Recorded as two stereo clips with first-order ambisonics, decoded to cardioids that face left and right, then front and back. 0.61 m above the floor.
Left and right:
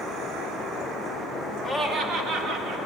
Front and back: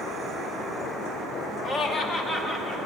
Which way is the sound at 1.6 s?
5° right.